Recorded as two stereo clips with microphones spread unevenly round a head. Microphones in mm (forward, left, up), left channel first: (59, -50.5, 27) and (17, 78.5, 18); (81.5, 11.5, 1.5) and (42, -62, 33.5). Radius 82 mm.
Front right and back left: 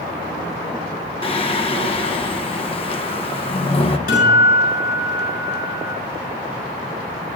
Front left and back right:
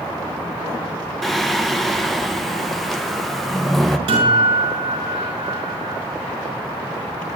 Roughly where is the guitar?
Right.